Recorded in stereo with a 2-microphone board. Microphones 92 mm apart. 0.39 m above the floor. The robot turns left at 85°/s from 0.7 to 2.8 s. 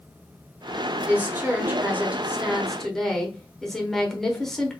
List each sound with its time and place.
1.1 s a woman speaking: 15° right (ahead or behind), 0.9 m; by 4.8 s 5° left (ahead or behind), 0.9 m